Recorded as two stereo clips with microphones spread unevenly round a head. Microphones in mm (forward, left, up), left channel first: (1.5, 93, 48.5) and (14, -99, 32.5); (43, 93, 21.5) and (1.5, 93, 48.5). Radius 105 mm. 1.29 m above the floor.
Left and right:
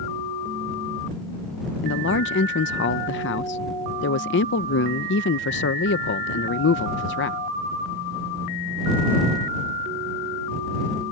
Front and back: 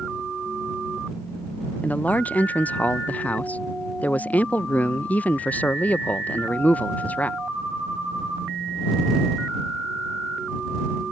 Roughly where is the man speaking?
Ahead left.